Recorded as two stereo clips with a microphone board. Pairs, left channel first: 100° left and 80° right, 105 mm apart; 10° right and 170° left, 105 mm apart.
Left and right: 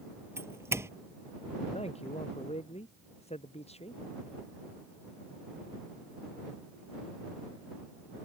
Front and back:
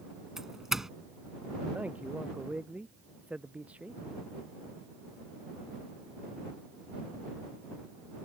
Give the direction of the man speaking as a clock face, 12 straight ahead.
9 o'clock.